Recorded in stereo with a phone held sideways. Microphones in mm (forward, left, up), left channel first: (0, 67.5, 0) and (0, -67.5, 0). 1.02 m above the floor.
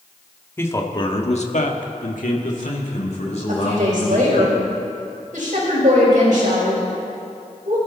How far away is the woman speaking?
About 5 m.